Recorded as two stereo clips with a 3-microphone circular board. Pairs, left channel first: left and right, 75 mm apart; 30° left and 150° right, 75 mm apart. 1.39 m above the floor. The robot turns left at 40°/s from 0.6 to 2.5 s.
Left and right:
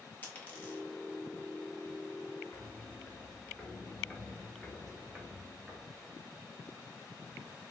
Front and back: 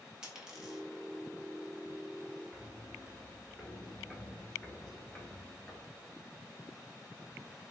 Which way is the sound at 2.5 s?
120° left.